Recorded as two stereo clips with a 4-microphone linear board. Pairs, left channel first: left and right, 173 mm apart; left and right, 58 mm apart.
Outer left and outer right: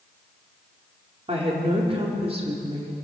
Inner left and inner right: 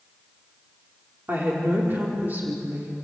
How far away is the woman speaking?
About 5 m.